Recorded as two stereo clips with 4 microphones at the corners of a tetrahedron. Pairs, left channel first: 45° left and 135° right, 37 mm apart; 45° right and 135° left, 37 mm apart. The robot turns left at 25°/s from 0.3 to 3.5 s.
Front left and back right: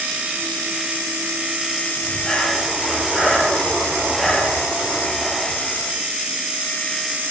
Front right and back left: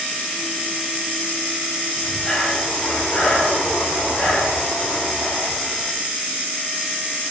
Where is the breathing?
20° left, 3 m; by 5.9 s 20° right, 3 m.